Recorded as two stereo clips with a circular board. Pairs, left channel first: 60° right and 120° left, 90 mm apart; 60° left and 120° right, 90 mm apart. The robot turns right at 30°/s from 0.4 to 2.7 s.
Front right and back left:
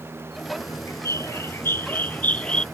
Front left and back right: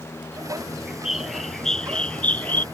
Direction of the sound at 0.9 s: 45° right.